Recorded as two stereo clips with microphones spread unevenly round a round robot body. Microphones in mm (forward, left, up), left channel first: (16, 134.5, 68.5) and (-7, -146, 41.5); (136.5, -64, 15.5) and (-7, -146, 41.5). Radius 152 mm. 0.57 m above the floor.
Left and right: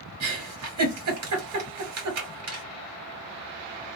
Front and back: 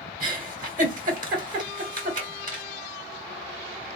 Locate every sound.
0.2 s a giggle: 115° right, 2 m